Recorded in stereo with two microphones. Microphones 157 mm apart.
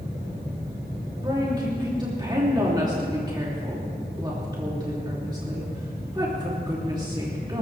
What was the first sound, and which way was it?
A woman speaking, 25° right (ahead or behind).